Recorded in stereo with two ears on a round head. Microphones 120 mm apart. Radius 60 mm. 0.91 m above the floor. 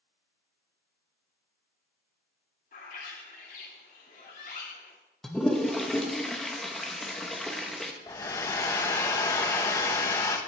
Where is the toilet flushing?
Centre (ahead or behind), 0.9 m.